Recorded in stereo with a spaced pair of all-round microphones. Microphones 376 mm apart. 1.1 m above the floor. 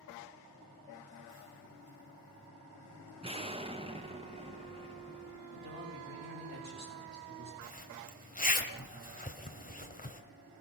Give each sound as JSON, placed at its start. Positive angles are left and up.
{"t": 3.2, "sound": "an explosion", "side_deg": -15, "distance_m": 0.9}
{"t": 5.5, "sound": "a man speaking", "side_deg": -75, "distance_m": 7.0}
{"t": 7.6, "sound": "a zipper", "side_deg": 20, "distance_m": 1.6}